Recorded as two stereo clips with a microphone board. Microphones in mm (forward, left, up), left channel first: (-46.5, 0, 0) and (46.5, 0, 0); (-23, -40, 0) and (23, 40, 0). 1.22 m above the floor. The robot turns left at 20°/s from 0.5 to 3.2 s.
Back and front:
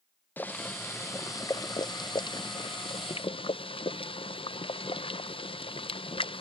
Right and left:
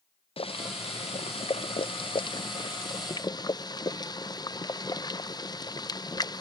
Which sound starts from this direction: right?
Boiling, at 0.4 s.